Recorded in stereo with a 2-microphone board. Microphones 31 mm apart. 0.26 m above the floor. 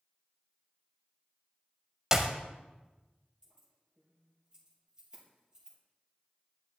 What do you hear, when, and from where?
2.1 s a clap: 20° right (ahead or behind), 0.9 m
3.4 s keys jangling: 15° right (ahead or behind), 4.5 m